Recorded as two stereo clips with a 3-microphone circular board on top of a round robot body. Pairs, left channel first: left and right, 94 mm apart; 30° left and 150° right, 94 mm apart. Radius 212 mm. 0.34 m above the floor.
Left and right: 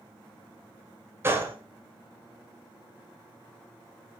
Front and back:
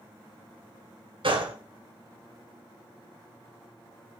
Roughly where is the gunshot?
Behind right.